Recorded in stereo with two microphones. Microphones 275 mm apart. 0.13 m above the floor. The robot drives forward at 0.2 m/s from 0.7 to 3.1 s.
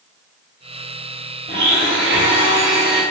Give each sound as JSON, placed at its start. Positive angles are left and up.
{"t": 1.5, "sound": "a blender", "side_deg": -45, "distance_m": 1.4}